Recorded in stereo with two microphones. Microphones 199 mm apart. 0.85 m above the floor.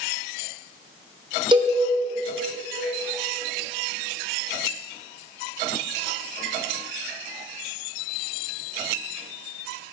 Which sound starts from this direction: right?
A cowbell, at 1.5 s.